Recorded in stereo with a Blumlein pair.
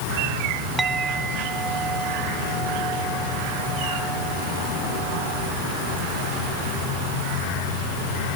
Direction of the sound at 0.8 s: 15° right.